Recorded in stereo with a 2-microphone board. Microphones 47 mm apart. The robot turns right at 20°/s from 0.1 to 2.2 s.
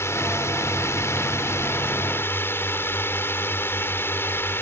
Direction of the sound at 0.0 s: 80° left.